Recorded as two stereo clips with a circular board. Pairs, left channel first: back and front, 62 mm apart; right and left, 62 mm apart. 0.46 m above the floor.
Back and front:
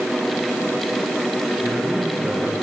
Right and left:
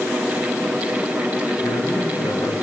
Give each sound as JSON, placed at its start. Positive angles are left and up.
{"t": 1.6, "sound": "a man speaking", "azimuth_deg": -65, "distance_m": 7.0}